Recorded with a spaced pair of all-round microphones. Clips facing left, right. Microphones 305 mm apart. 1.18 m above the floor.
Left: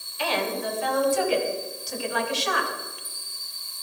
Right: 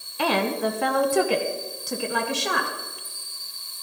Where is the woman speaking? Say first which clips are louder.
Right 4 dB; 65° right (ahead or behind), 1.2 m; by 2.7 s 55° right (ahead or behind), 2 m.